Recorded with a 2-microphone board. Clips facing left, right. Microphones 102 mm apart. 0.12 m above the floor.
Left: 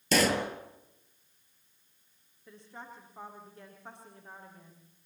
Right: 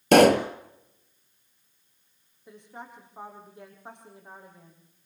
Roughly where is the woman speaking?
Centre.